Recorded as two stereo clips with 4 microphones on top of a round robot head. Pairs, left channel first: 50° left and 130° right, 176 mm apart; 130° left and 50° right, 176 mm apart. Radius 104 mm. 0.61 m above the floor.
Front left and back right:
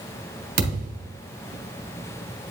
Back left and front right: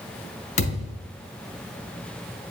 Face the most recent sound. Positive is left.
turn(degrees=180)